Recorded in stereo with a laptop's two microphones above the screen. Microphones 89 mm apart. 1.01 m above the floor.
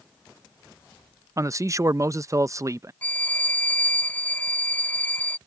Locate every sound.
1.4 s a man speaking: 35° right (ahead or behind)
3.0 s a violin: 15° left (ahead or behind)